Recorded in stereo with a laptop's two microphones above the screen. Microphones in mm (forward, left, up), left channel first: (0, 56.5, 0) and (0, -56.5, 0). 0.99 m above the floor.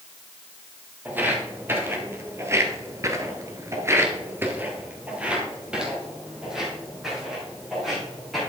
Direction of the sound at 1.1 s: 15° right (ahead or behind).